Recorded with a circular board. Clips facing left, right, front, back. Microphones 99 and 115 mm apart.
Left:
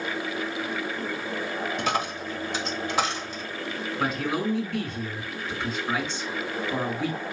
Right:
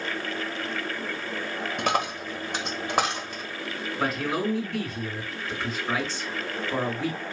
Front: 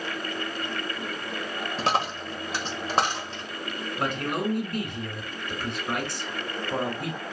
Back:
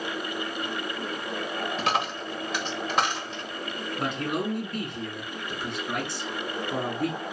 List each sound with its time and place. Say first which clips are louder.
1.8 s a dropped coin: right 4 dB, front 3 dB; 55° right, 1.1 m
4.0 s a man speaking: even, front 1 dB; 5° right, 2.5 m